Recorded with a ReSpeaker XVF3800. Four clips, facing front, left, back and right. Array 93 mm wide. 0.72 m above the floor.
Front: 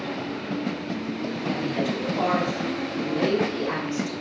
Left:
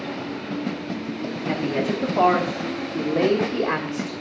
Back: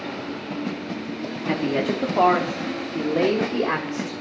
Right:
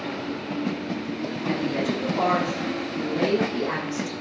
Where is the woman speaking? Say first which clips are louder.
Left 2 dB, back 5 dB; 160° left, 1.1 m; by 4.1 s 135° left, 2.5 m.